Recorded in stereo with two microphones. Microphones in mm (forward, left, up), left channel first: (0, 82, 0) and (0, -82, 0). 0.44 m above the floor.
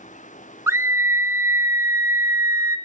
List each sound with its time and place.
0.7 s a scream: 15° right (ahead or behind), 0.8 m